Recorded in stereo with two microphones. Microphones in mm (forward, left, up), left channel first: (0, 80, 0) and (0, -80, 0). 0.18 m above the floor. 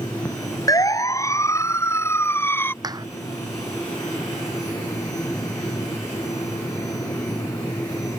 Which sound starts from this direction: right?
A clap, at 2.8 s.